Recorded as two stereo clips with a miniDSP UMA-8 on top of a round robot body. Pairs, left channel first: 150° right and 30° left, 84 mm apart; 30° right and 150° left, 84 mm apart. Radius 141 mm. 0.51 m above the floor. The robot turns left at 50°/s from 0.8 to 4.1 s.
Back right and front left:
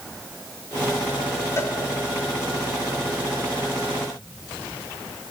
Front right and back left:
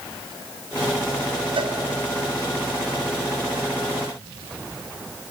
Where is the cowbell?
155° left, 2.5 m; by 1.8 s 140° left, 2.5 m.